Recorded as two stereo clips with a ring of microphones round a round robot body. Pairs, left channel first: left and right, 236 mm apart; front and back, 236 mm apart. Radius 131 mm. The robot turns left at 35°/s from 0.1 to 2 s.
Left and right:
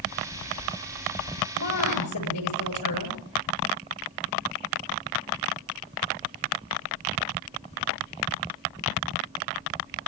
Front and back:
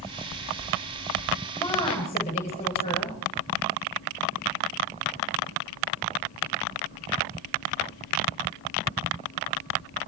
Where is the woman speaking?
80° left, 8 m; by 3.2 s 65° left, 8 m.